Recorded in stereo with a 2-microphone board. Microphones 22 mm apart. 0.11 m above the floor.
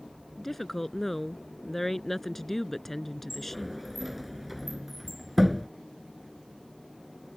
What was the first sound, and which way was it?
A woman speaking, 10° left (ahead or behind).